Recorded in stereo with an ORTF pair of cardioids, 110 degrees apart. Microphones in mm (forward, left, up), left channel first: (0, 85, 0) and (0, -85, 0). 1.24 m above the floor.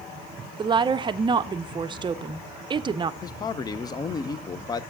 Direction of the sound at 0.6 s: 30° right.